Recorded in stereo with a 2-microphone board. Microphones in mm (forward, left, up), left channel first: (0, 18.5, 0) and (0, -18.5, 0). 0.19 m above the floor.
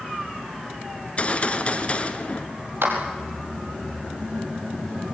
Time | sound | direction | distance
1.0 | a gunshot | 30° left (ahead or behind) | 1.6 m
2.8 | a clap | 75° right (ahead or behind) | 4.5 m